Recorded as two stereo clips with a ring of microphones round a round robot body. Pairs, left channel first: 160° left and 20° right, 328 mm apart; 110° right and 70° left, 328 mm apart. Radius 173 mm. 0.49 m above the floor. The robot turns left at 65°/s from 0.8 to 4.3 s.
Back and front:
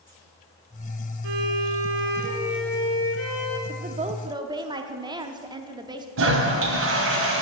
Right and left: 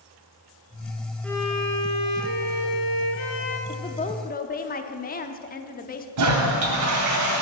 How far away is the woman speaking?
About 0.8 m.